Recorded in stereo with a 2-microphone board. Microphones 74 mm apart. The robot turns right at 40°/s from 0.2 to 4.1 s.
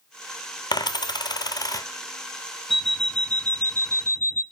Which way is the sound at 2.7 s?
5° right.